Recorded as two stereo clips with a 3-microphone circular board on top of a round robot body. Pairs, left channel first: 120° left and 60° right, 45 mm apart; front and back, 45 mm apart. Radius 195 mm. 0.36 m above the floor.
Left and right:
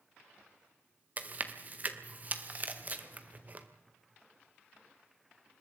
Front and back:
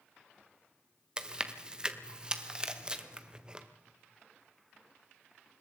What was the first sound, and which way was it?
Chewing, 110° right.